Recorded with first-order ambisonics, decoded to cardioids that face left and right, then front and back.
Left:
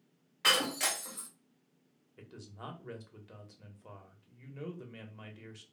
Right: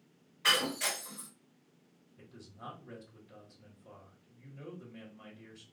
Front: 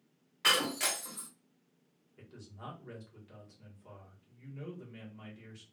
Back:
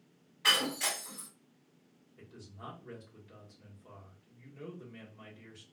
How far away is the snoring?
I don't hear snoring.